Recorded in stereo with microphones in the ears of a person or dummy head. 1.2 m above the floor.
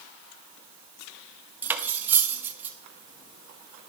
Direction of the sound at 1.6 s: 10° right (ahead or behind).